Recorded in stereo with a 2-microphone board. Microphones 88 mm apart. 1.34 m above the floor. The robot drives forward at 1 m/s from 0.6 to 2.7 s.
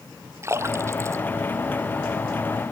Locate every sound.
0.4 s a splash: 30° right (ahead or behind); by 2.4 s 35° right (ahead or behind)